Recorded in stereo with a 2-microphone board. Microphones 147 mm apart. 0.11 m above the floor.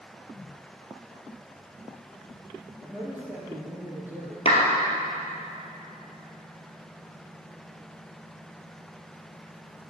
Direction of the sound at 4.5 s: 45° left (ahead or behind).